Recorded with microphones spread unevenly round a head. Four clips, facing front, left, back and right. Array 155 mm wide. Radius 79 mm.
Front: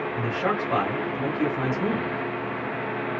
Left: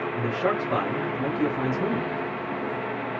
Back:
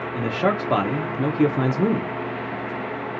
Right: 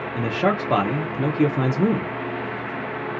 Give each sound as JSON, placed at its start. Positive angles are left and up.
{"t": 0.1, "sound": "a man speaking", "azimuth_deg": -130, "distance_m": 0.5}